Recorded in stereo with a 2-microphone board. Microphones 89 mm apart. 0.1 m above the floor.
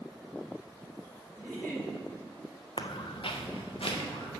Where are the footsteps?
70° left (ahead or behind), 0.6 m; by 4.3 s 90° left, 1.6 m.